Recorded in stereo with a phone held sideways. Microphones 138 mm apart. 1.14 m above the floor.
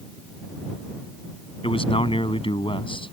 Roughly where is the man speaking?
Left.